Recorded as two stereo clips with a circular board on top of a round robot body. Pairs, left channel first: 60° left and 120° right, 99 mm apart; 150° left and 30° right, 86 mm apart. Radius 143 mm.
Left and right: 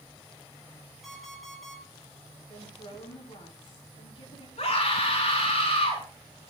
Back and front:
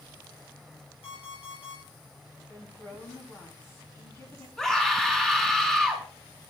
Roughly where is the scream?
Ahead left.